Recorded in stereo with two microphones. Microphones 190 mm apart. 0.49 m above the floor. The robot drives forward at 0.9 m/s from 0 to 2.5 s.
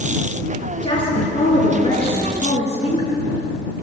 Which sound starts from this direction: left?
A woman speaking, at 0.8 s.